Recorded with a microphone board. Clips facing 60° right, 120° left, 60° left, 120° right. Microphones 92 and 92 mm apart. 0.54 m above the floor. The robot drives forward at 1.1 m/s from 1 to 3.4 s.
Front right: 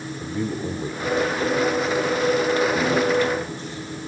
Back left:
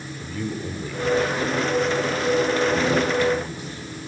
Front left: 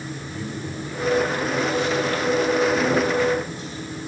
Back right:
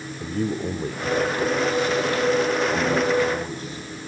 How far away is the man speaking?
About 1.5 m.